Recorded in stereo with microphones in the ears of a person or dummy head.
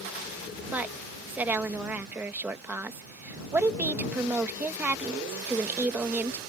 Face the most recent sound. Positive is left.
turn(degrees=-10)  # may be behind; listen again after turning